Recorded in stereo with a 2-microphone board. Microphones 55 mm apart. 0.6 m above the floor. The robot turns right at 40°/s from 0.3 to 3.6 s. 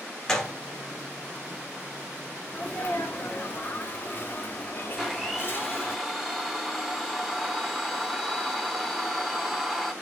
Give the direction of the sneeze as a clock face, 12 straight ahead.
10 o'clock.